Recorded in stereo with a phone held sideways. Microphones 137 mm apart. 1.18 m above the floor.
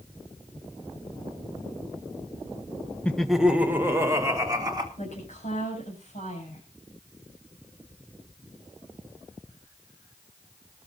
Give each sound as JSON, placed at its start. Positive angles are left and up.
{"t": 3.0, "sound": "laughter", "side_deg": 10, "distance_m": 1.0}
{"t": 5.0, "sound": "a woman speaking", "side_deg": 55, "distance_m": 7.5}